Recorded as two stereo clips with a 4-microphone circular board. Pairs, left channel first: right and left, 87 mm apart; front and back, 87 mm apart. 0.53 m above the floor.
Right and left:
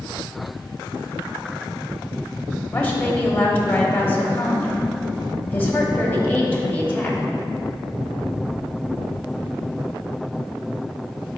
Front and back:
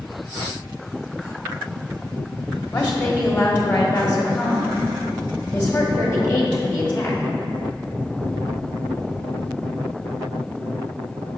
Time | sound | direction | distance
2.7 | a woman speaking | 35° right | 0.9 m